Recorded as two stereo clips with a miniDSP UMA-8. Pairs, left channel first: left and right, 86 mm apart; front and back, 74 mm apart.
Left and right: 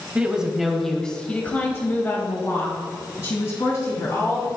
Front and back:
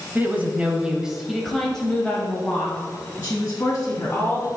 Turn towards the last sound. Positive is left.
turn(degrees=55)